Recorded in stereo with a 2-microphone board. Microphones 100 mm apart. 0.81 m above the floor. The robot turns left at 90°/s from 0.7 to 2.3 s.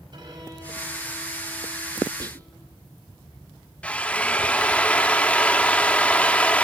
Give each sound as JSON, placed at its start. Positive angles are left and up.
{"t": 0.1, "sound": "a violin", "azimuth_deg": -130, "distance_m": 4.5}
{"t": 2.2, "sound": "whispering", "side_deg": -40, "distance_m": 0.5}
{"t": 3.8, "sound": "a drill", "side_deg": 15, "distance_m": 1.0}